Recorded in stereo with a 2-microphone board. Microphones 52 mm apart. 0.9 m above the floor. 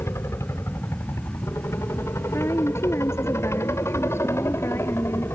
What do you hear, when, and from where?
0.0 s a helicopter: 60° left (ahead or behind); by 5.3 s 55° left (ahead or behind)
2.3 s a woman speaking: 55° left (ahead or behind)